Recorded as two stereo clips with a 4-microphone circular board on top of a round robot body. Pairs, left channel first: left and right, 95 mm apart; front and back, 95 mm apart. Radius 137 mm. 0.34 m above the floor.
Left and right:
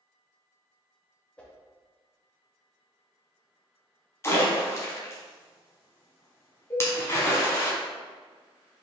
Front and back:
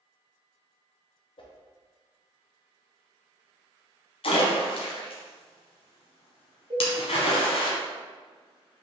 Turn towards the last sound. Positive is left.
turn(degrees=150)